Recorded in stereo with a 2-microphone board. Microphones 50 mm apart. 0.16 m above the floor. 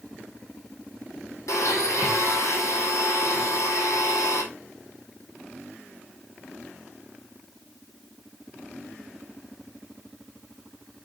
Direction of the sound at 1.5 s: 80° left.